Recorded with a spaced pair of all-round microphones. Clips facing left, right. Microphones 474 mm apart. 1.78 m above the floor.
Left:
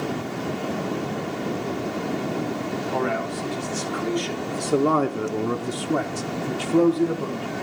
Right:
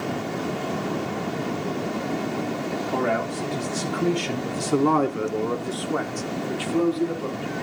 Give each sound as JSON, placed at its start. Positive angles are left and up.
{"t": 2.9, "sound": "a man speaking", "side_deg": -65, "distance_m": 1.7}